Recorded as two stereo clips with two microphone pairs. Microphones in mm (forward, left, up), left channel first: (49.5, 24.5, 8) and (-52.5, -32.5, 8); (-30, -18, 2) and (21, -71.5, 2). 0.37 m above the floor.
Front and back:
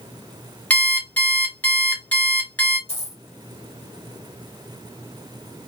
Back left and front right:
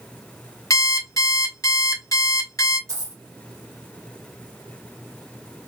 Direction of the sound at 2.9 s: Straight ahead.